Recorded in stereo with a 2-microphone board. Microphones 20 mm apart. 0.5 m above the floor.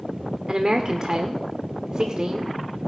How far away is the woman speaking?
About 1.1 m.